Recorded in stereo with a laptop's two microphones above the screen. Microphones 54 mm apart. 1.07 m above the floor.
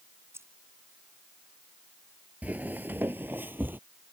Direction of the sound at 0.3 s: 60° right (ahead or behind).